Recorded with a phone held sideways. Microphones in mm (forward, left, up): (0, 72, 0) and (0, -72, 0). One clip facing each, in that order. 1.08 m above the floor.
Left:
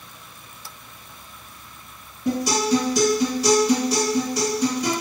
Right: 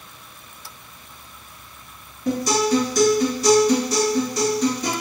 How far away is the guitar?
About 2.0 m.